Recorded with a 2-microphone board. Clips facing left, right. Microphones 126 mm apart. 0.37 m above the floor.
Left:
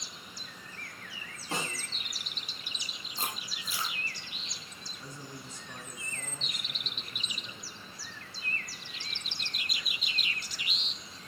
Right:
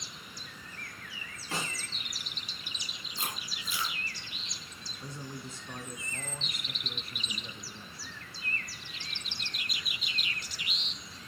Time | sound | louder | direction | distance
1.5 | a snare drum | left 1 dB | 25° left (ahead or behind) | 8 m
3.2 | chewing | left 1 dB | 35° left (ahead or behind) | 4 m
5.0 | a man speaking | right 3 dB | 30° right (ahead or behind) | 3.5 m